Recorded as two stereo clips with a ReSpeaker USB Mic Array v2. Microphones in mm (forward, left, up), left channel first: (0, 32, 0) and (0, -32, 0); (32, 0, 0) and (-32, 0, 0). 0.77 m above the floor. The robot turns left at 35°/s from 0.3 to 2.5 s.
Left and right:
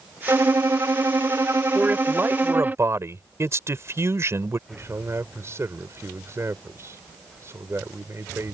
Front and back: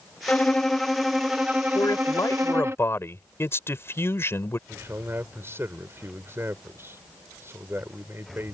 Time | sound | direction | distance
0.3 | a violin | 70° right | ?
1.8 | a man speaking | 20° right | ?
4.7 | a man speaking | 135° right | ?